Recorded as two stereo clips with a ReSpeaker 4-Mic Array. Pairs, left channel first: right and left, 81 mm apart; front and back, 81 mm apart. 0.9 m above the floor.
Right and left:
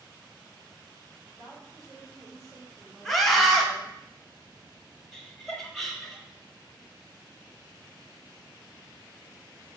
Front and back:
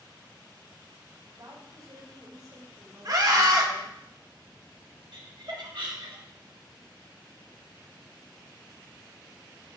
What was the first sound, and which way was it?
A woman speaking, 140° left.